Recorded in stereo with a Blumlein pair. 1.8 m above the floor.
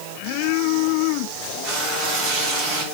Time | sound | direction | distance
1.6 | frying | 25° right | 3 m